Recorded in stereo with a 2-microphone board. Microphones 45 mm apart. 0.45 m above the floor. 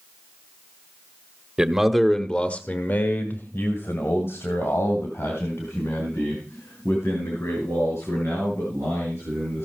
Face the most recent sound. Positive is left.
turn(degrees=75)  # may be behind; listen again after turning